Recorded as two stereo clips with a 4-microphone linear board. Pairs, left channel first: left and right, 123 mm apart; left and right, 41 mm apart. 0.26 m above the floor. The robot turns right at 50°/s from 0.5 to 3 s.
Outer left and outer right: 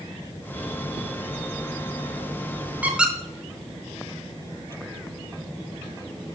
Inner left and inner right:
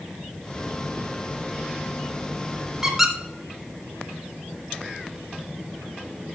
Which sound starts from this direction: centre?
A squeak, at 2.8 s.